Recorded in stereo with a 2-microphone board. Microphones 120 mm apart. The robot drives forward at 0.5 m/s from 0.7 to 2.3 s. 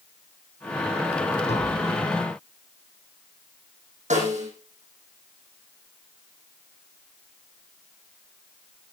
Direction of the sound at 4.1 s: 90° right.